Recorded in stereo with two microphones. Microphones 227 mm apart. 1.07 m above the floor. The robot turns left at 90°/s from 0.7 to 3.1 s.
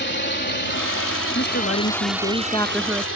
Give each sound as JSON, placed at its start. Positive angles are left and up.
{"t": 0.0, "sound": "a drone", "side_deg": 50}
{"t": 1.4, "sound": "a woman speaking", "azimuth_deg": 135}